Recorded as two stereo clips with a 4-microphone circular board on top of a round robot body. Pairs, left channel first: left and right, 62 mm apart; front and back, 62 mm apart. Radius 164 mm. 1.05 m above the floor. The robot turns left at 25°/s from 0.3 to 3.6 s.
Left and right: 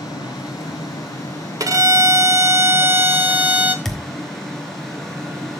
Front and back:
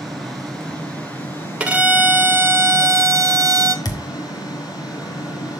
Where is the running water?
90° left, 2.5 m; by 5.6 s 5° left, 2.5 m.